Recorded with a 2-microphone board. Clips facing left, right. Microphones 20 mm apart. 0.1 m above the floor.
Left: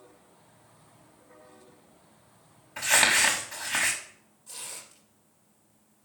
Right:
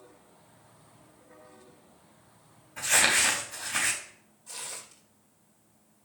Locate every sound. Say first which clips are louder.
2.8 s crumpling: left 2 dB; 55° left (ahead or behind), 4 m
4.5 s tearing paper: right 1 dB; 10° right (ahead or behind), 3 m